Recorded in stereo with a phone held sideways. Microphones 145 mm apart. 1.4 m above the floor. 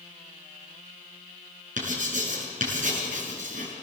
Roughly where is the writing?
Right.